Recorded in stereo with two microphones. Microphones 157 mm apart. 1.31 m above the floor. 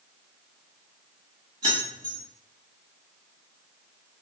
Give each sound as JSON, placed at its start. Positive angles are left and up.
{"t": 1.6, "sound": "keys jangling", "side_deg": -45, "distance_m": 1.5}